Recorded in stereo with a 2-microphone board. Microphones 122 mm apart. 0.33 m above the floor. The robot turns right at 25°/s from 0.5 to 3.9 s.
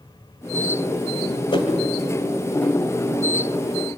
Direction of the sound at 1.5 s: 45° left (ahead or behind).